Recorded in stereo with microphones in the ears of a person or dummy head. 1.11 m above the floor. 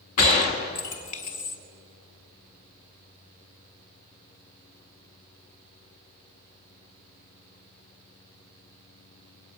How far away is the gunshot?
About 0.7 m.